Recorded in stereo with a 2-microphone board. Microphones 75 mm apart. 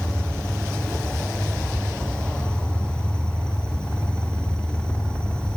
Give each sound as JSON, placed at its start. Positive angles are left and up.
{"t": 0.0, "sound": "an insect", "side_deg": 15, "distance_m": 3.0}